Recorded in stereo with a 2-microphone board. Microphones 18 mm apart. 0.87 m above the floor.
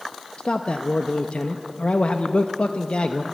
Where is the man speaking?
60° left (ahead or behind), 0.6 m.